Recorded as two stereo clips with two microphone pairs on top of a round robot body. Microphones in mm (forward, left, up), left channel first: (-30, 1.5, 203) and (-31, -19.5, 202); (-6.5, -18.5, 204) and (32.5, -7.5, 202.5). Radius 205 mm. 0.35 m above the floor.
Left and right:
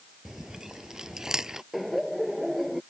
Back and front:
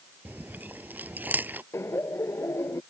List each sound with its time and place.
0.2 s chewing: 30° right
1.7 s laughter: straight behind